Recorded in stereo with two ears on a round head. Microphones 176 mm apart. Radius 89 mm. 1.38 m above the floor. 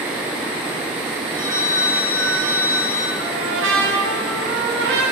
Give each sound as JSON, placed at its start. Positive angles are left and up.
{"t": 1.3, "sound": "a phone ringing", "side_deg": -15, "distance_m": 3.5}
{"t": 3.2, "sound": "a trumpet", "side_deg": -75, "distance_m": 3.5}